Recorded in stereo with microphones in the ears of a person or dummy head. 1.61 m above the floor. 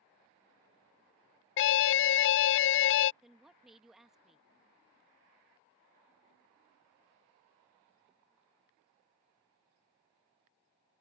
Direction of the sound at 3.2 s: 5° right (ahead or behind).